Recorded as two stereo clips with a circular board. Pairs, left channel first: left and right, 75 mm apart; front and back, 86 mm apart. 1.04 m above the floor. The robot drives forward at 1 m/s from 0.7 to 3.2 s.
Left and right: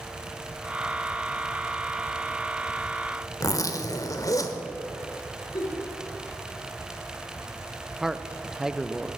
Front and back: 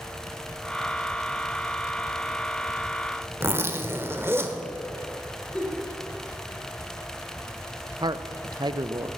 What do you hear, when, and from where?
3.4 s a zipper: 120° left, 1.2 m
5.5 s a giggle: 75° left, 3.5 m
8.0 s a man speaking: 170° right, 0.6 m